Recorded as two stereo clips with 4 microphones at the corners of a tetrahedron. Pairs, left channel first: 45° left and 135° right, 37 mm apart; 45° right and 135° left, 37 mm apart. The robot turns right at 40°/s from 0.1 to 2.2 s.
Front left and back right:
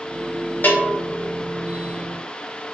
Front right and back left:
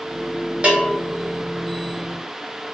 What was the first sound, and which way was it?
A bell, 80° left.